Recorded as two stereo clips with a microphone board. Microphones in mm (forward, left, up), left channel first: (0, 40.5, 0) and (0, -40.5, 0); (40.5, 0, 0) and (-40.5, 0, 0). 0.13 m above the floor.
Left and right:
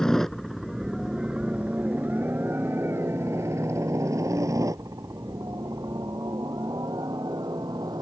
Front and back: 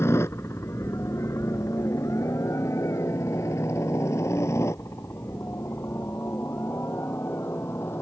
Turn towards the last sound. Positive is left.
turn(degrees=-55)